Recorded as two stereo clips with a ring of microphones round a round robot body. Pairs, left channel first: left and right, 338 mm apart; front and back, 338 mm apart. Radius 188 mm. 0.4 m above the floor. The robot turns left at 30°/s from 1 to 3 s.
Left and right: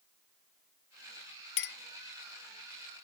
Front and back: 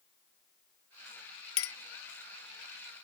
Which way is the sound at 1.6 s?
40° left.